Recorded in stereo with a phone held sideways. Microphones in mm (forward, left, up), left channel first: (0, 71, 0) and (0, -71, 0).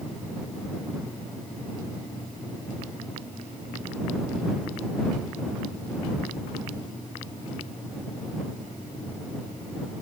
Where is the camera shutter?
No camera shutter in this recording.